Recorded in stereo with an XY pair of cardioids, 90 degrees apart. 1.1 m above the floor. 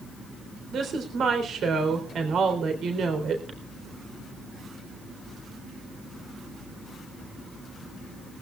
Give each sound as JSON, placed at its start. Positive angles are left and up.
{"t": 0.7, "sound": "a woman speaking", "azimuth_deg": -70, "distance_m": 3.5}